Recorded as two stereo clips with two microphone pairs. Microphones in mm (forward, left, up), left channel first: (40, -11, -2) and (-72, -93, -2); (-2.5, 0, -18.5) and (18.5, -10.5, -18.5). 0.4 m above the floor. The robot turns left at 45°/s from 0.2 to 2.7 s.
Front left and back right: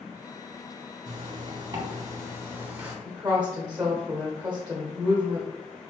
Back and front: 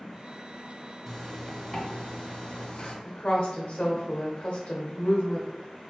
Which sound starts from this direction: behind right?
A zipper, at 1.1 s.